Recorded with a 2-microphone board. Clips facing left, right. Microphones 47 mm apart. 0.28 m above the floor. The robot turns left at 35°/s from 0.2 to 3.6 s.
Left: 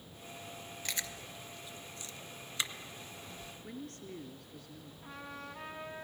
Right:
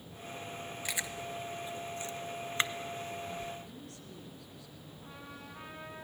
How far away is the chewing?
About 0.9 m.